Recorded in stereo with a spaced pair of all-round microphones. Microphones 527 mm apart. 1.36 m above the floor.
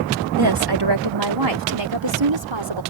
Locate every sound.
0.4 s a woman speaking: 45° right (ahead or behind); by 2.8 s 55° right (ahead or behind)